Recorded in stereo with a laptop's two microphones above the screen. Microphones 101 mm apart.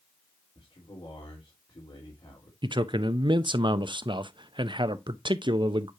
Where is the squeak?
No squeak in this recording.